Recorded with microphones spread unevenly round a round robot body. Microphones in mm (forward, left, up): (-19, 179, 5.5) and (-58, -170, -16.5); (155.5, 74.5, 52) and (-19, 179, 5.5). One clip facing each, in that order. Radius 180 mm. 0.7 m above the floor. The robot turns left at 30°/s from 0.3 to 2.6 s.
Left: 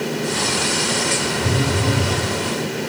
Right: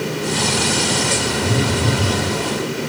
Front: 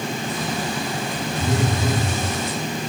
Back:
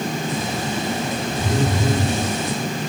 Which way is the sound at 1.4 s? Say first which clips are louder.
Right 2 dB, back 1 dB; 145° left.